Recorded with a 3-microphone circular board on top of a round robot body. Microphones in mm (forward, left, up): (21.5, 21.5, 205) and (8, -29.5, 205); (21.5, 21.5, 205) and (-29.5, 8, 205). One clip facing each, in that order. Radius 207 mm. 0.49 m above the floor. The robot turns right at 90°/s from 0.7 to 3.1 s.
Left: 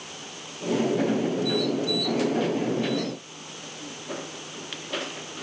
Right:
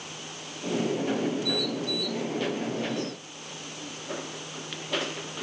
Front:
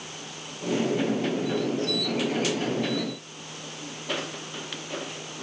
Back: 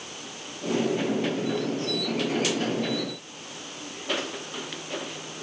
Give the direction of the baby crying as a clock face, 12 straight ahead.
No baby crying in this recording.